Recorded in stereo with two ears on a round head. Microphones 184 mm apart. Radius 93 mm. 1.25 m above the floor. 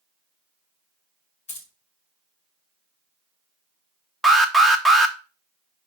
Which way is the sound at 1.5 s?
35° left (ahead or behind).